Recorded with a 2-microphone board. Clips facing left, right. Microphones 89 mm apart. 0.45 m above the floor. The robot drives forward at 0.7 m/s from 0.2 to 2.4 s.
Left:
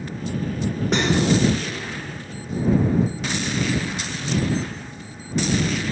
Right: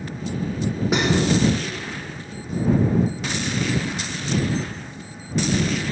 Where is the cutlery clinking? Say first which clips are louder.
Even; 5° right (ahead or behind), 0.9 m.